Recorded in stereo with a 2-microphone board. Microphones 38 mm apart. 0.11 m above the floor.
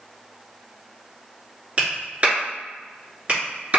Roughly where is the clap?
Right.